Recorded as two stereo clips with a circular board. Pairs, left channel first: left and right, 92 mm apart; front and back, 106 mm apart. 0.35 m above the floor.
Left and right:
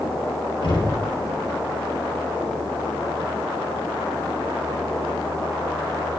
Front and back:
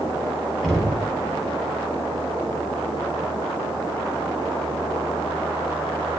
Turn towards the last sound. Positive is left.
turn(degrees=85)